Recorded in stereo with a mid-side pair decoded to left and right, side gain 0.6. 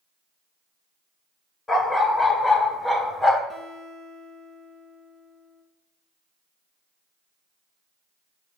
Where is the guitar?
10° left, 1.6 m.